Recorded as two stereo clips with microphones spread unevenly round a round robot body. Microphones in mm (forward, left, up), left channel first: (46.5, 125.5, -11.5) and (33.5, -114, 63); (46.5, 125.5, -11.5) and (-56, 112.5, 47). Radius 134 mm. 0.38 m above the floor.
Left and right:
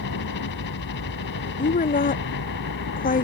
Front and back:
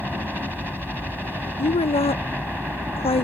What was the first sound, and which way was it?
A helicopter, 100° left.